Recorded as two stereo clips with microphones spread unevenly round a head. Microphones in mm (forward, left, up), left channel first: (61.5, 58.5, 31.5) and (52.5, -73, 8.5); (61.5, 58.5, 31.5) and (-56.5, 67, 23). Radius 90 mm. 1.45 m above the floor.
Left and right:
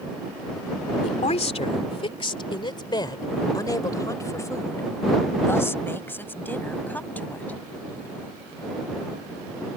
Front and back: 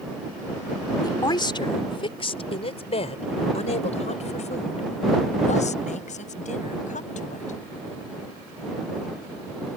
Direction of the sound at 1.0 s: 50° left.